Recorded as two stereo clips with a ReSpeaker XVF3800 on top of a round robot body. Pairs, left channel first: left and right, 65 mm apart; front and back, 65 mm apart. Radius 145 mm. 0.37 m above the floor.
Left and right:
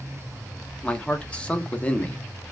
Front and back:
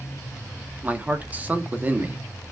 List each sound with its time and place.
0.8 s a man speaking: 145° left, 1.0 m